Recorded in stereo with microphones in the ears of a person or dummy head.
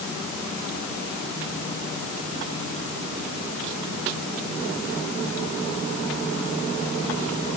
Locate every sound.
Only background noise.